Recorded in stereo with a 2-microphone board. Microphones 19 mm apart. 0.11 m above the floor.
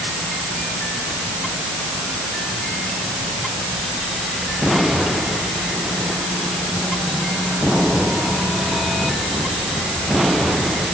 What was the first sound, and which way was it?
Only background noise.